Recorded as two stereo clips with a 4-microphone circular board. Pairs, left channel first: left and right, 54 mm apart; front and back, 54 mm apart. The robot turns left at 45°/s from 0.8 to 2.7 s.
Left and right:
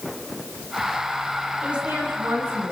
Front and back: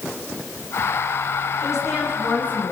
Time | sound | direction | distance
1.6 | a woman speaking | 15° right | 7 m